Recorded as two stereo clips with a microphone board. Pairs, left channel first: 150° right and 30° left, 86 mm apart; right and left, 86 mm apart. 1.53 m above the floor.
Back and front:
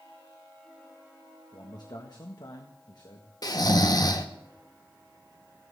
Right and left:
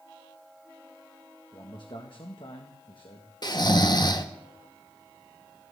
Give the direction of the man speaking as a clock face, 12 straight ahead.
4 o'clock.